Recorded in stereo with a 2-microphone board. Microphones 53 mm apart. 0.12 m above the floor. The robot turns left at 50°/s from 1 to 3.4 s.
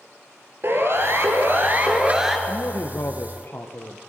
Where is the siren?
50° right (ahead or behind), 3.5 m; by 2.4 s 5° right (ahead or behind), 2.5 m.